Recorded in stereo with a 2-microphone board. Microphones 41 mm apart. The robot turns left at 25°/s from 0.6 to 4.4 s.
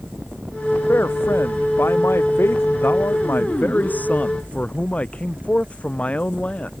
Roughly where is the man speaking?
Behind left.